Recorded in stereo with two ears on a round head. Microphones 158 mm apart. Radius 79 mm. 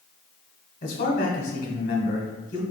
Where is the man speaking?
45° left (ahead or behind), 1.2 m.